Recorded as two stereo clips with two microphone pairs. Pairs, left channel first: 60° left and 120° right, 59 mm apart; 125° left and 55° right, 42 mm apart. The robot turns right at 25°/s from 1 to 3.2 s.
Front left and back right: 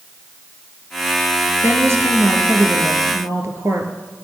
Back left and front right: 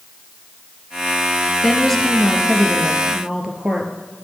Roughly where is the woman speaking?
Behind right.